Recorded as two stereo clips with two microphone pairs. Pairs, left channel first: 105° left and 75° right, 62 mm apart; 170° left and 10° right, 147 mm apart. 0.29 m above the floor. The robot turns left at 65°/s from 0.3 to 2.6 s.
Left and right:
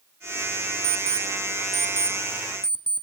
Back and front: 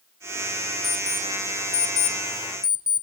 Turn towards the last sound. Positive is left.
turn(degrees=180)